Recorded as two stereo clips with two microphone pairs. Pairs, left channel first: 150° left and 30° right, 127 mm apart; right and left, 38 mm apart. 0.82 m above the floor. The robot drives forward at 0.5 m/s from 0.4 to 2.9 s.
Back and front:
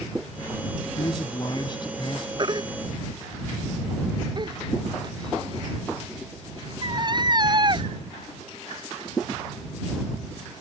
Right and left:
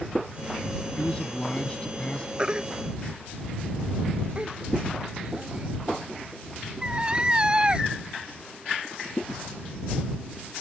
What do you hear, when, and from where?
1.0 s a man speaking: 155° right
2.4 s a baby crying: 25° left